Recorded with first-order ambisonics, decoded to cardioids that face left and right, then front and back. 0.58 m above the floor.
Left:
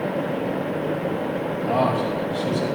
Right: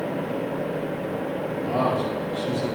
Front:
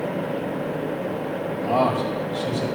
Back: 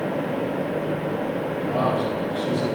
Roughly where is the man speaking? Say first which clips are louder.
Left 3 dB, front 3 dB; ahead left.